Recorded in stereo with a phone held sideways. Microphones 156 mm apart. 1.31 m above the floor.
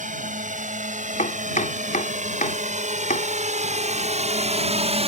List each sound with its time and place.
0.0 s a drone: 60° right (ahead or behind); by 5.1 s 45° right (ahead or behind)
1.2 s chopping: 60° left (ahead or behind)